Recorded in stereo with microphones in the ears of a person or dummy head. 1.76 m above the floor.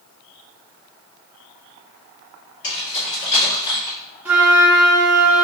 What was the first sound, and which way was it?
Keys jangling, 45° left (ahead or behind).